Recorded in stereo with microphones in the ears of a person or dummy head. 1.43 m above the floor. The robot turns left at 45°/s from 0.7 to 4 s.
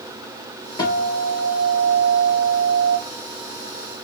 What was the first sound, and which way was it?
A guitar, 160° left.